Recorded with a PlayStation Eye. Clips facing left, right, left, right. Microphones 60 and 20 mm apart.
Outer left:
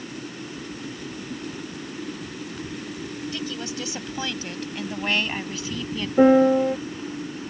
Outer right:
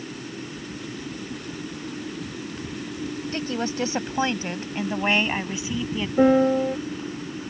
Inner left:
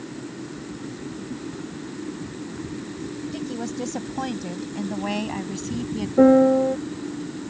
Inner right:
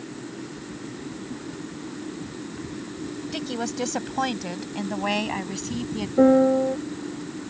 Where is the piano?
10° left (ahead or behind).